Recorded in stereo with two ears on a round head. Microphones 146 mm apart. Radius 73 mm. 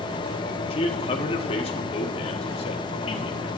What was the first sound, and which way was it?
A man speaking, 35° left (ahead or behind).